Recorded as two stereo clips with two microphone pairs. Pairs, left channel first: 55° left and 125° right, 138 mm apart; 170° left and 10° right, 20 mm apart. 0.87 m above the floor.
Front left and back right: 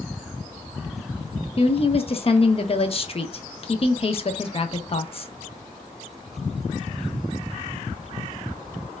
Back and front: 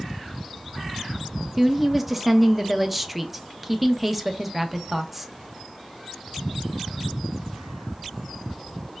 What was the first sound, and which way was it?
A woman speaking, 65° left.